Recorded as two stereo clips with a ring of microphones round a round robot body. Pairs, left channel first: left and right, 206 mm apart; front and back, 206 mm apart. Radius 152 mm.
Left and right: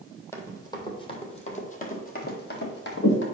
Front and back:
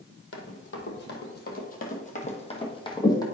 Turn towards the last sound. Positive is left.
turn(degrees=70)